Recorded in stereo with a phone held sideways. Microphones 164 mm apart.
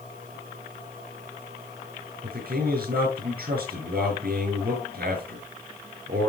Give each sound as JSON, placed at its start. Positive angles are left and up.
{"t": 2.2, "sound": "a man speaking", "side_deg": -65, "distance_m": 9.0}